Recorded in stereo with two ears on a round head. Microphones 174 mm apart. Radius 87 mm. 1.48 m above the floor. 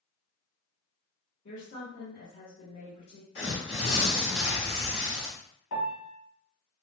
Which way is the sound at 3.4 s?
65° left (ahead or behind).